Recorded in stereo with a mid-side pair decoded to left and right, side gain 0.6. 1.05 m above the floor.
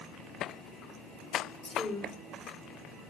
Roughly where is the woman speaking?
Ahead.